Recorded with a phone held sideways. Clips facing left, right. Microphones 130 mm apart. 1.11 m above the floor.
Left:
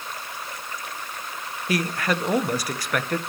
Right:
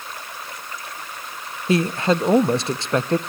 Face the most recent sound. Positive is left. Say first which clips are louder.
# right 6 dB
turn(degrees=-25)  # may be behind; listen again after turning